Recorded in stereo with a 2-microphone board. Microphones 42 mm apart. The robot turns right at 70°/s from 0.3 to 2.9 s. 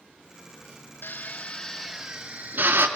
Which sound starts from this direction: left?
A drill, at 1.0 s.